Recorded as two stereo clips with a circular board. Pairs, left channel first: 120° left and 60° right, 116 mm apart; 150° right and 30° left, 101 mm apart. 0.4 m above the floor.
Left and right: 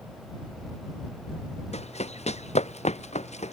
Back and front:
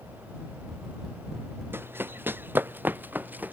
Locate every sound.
1.7 s running footsteps: 100° left; by 3.5 s 105° left